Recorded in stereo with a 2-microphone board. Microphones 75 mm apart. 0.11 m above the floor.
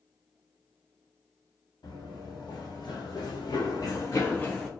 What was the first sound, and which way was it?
Running footsteps, 70° left (ahead or behind).